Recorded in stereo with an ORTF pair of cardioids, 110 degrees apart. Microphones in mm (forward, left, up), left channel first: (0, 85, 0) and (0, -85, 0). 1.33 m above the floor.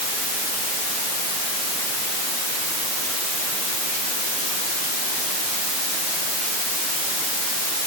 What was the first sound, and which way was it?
Only background noise.